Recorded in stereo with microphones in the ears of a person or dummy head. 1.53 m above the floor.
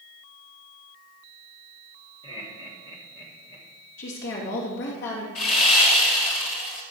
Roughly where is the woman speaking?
Left.